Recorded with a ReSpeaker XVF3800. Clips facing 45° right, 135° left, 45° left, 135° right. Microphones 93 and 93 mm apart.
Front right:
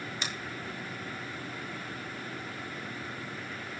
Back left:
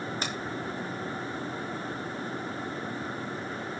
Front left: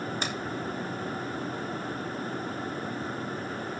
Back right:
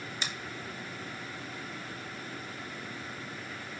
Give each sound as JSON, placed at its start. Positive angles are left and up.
{"t": 0.2, "sound": "a finger snap", "azimuth_deg": 85, "distance_m": 4.0}